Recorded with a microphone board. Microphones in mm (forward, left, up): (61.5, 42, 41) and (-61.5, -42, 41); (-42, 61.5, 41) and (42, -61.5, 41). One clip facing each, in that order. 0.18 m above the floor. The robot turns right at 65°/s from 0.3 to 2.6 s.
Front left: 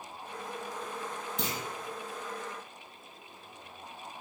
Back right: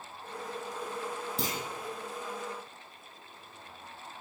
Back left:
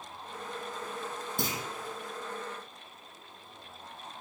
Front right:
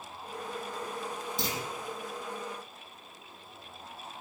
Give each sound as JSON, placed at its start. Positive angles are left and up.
{"t": 1.4, "sound": "a clunk", "azimuth_deg": 160, "distance_m": 3.5}